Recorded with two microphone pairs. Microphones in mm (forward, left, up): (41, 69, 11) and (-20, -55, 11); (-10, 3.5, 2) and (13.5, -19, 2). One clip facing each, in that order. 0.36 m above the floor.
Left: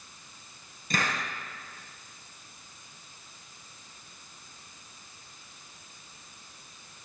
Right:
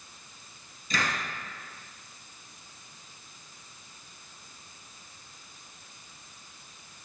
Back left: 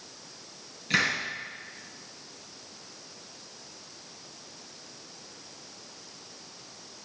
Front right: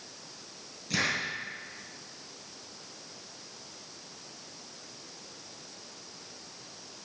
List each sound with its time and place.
0.9 s a hiss: 95° left, 3 m